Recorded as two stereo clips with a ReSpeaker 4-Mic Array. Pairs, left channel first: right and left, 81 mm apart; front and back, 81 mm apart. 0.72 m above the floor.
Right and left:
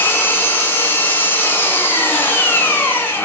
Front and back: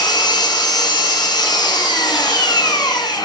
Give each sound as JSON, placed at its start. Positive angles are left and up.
{"t": 0.0, "sound": "an engine running", "azimuth_deg": -25, "distance_m": 2.0}